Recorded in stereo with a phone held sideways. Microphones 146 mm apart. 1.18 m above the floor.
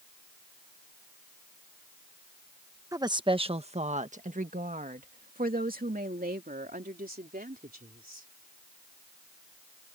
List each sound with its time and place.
2.9 s a woman speaking: 25° right (ahead or behind); by 8.3 s 80° right